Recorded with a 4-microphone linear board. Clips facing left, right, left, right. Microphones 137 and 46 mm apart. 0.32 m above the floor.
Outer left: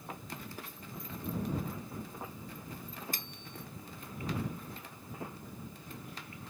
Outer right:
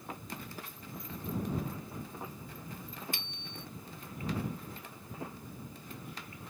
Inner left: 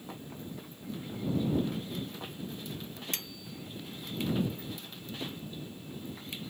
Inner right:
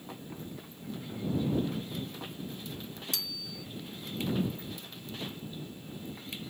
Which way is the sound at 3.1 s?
40° left (ahead or behind).